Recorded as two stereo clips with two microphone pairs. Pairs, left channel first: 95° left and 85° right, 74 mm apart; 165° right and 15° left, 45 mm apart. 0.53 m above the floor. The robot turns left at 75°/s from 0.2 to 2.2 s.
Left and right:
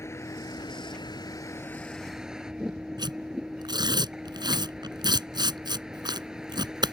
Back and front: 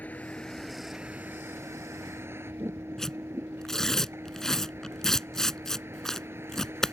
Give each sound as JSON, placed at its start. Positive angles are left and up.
{"t": 0.0, "sound": "a vehicle", "azimuth_deg": 145}
{"t": 3.0, "sound": "tearing paper", "azimuth_deg": -85}